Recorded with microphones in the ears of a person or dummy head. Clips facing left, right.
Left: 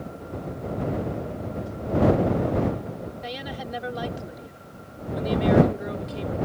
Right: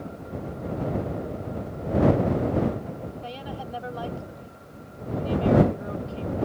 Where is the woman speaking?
25° left (ahead or behind).